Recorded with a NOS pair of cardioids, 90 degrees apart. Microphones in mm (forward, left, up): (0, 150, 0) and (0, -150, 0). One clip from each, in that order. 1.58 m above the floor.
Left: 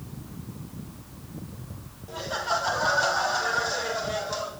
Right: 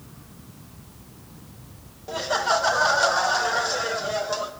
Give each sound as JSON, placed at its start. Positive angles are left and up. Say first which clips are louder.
{"t": 2.1, "sound": "laughter", "louder": "right 5 dB", "azimuth_deg": -50, "distance_m": 1.1}